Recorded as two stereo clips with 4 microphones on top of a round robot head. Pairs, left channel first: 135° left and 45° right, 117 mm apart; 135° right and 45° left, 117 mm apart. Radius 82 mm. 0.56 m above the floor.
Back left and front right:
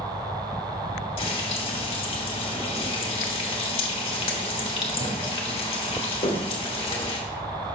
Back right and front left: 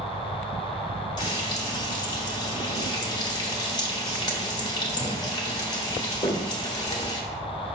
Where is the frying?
170° left, 1.4 m.